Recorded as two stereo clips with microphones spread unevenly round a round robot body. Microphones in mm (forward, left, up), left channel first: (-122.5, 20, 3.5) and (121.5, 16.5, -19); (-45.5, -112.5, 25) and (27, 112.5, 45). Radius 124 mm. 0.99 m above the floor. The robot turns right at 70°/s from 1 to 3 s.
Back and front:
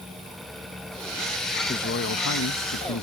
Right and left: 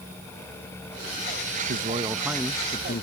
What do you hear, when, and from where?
1.7 s a man speaking: 115° left; by 3.0 s 150° right